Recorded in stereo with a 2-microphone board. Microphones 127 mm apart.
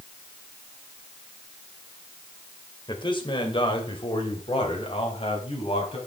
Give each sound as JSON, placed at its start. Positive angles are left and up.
{"t": 2.9, "sound": "a man speaking", "side_deg": 35, "distance_m": 2.5}